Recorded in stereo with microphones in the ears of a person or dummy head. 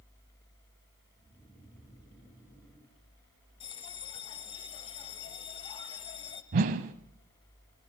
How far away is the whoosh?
About 1.3 m.